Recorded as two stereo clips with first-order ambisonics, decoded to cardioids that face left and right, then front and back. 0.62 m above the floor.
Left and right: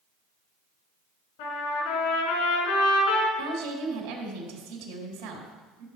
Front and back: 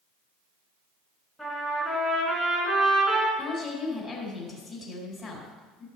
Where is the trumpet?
90° left, 3.5 m.